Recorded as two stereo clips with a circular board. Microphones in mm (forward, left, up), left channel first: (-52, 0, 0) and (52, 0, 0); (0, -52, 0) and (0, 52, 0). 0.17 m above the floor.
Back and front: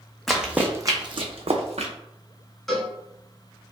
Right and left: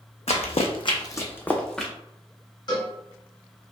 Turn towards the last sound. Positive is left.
turn(degrees=-90)